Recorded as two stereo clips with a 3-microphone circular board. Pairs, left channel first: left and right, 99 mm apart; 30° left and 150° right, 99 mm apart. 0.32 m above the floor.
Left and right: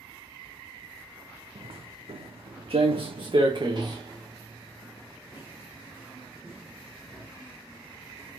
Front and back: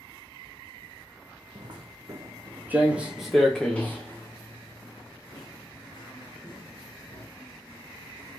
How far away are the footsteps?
About 1.3 m.